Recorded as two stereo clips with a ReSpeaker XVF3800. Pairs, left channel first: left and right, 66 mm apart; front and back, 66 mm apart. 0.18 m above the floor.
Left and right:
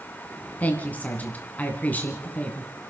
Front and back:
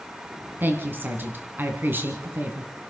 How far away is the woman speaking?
About 2 m.